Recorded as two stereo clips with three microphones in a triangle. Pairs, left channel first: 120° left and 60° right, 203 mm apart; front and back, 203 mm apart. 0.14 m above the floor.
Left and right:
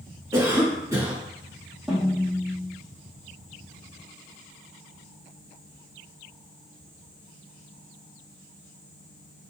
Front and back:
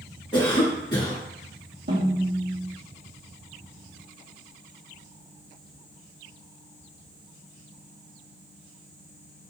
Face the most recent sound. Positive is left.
turn(degrees=-150)